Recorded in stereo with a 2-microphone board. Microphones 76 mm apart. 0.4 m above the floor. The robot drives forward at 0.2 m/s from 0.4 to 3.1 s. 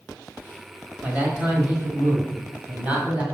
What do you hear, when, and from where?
1.0 s a man speaking: 25° right (ahead or behind), 1.6 m; by 3.2 s 20° right (ahead or behind), 2.0 m